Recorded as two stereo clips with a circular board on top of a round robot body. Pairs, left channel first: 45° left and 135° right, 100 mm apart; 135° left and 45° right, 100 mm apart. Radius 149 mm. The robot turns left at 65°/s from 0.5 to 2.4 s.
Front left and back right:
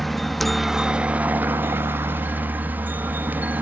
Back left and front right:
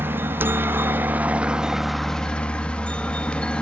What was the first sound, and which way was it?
A helicopter, 45° right.